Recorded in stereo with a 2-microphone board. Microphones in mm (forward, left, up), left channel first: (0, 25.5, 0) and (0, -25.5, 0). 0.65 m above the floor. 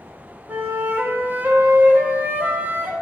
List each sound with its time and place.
0.5 s a flute: 40° right (ahead or behind), 0.7 m